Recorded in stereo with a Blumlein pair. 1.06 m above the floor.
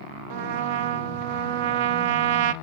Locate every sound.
0.3 s a trumpet: 50° right, 0.6 m